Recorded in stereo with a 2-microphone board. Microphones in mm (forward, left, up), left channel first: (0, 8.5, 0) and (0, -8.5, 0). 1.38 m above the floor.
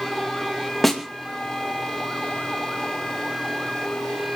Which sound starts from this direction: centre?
A snare drum, at 0.8 s.